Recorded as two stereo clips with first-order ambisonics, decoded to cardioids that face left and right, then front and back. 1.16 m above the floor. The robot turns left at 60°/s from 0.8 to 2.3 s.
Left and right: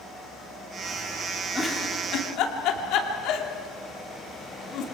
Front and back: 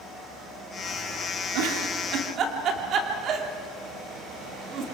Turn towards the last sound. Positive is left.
turn(degrees=130)